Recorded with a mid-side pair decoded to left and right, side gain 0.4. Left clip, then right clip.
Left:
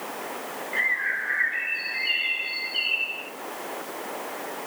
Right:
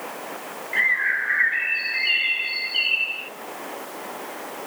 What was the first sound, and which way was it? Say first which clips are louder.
A bird: right 4 dB; 40° right.